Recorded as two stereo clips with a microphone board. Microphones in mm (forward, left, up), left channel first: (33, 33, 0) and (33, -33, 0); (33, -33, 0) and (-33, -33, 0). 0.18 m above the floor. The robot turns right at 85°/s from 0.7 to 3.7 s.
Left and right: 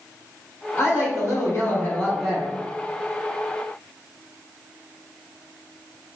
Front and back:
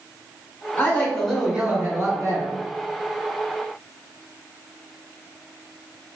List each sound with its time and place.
0.8 s a woman speaking: 45° left, 1.4 m; by 2.5 s 165° right, 1.4 m